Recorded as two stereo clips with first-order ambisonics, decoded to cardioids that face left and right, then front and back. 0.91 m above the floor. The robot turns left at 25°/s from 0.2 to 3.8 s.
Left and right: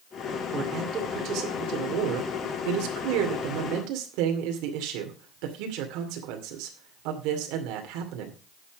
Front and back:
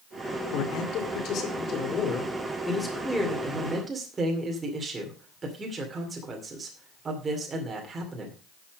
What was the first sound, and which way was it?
A man speaking, 25° right.